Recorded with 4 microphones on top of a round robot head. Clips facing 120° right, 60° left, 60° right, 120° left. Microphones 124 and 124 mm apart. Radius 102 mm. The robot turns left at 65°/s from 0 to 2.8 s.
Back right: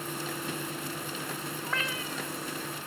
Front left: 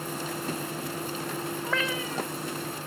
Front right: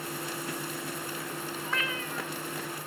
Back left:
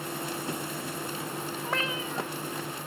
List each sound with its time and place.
1.6 s a cat meowing: 65° left; by 2.3 s 25° left